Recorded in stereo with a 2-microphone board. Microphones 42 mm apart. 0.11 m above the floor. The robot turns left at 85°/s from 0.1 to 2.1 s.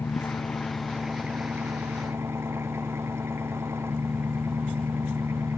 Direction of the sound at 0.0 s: 75° left.